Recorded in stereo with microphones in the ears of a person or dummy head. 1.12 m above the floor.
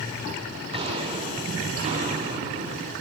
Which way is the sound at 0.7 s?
35° right (ahead or behind).